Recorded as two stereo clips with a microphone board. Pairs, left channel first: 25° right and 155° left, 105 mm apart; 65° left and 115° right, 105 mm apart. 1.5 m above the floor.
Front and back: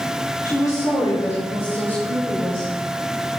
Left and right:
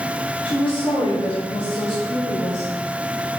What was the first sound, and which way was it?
A woman speaking, 30° left.